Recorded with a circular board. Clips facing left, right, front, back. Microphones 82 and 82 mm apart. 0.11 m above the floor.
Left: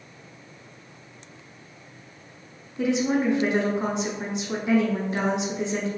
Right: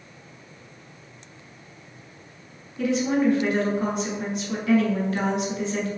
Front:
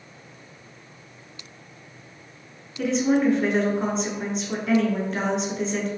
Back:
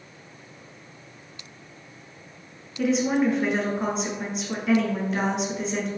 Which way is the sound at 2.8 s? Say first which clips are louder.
Right 1 dB, front 1 dB; 100° left.